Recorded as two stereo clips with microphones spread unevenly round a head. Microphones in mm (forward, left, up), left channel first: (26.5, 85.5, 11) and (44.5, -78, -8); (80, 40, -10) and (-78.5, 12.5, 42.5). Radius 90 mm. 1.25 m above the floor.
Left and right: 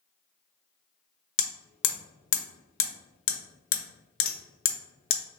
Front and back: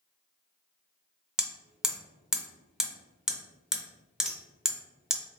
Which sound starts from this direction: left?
Hammering, at 1.4 s.